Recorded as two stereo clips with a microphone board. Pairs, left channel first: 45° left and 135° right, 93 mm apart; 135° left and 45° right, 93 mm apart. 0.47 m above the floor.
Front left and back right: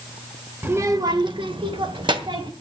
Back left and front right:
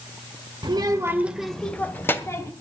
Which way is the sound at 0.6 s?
70° right.